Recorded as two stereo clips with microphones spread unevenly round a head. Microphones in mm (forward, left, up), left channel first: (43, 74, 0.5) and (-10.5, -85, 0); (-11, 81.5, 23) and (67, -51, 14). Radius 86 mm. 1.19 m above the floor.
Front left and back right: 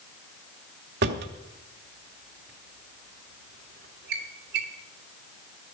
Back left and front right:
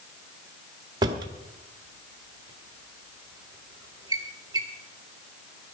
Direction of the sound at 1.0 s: 125° right.